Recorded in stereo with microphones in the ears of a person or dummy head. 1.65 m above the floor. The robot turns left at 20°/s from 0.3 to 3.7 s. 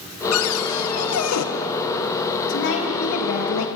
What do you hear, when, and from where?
0.3 s a cupboard door: 75° left (ahead or behind), 1.5 m; by 1.5 s 80° left, 1.5 m
2.5 s a woman speaking: 60° left (ahead or behind), 3 m; by 3.7 s 85° left, 3 m